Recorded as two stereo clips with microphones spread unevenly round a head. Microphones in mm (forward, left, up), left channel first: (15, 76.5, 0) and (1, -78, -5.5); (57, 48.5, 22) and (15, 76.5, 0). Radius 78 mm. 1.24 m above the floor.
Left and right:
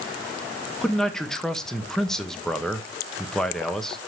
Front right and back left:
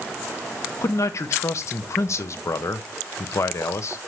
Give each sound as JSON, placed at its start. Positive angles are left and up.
{"t": 0.8, "sound": "a man speaking", "azimuth_deg": -5, "distance_m": 1.3}